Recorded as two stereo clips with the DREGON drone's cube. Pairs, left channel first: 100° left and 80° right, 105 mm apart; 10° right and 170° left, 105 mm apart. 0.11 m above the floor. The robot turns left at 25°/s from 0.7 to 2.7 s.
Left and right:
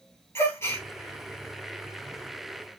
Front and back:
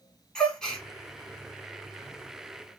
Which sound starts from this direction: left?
A gasp, at 0.3 s.